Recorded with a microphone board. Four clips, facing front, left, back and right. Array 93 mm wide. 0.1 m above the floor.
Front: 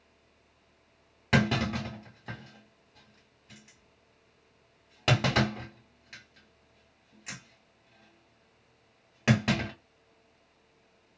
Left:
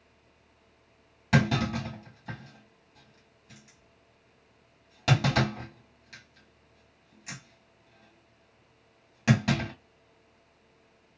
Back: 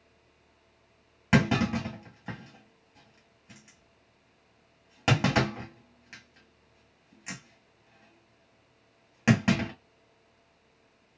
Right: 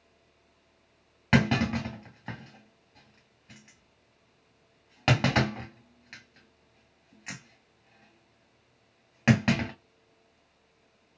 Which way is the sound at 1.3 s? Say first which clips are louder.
Right 1 dB, back 2 dB; 110° right.